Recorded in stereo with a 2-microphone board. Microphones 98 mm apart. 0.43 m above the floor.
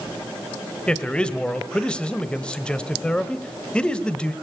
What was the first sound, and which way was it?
A man speaking, 10° left (ahead or behind).